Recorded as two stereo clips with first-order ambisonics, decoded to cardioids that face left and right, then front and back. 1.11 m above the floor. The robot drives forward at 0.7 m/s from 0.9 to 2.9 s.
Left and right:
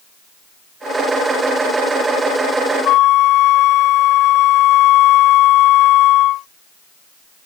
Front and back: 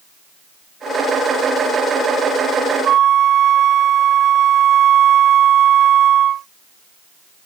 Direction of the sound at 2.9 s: 125° left.